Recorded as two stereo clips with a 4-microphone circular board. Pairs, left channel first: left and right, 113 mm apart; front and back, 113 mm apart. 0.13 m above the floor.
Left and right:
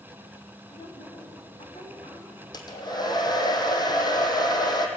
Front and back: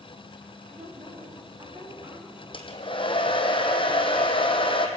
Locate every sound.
0.7 s a woman speaking: 130° left, 7.5 m; by 2.4 s 125° left, 8.5 m
2.5 s a hair dryer: 40° left, 2.5 m